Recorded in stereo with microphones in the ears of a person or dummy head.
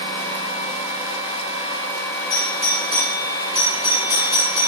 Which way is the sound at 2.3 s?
15° left (ahead or behind).